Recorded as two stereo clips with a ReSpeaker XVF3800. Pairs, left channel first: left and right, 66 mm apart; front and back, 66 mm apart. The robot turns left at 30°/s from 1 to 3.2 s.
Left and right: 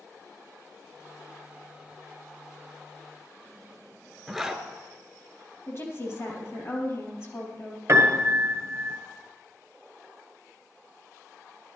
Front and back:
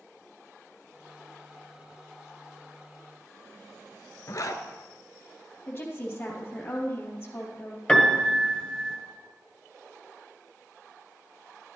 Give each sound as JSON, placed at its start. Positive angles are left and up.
{"t": 4.3, "sound": "a zipper", "azimuth_deg": 0, "distance_m": 0.9}
{"t": 5.7, "sound": "a woman speaking", "azimuth_deg": 55, "distance_m": 3.5}
{"t": 7.9, "sound": "a piano", "azimuth_deg": -75, "distance_m": 1.4}